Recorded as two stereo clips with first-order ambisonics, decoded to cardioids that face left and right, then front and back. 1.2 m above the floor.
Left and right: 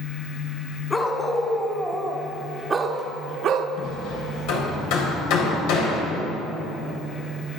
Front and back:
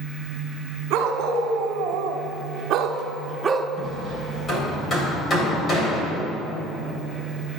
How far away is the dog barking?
About 1.5 m.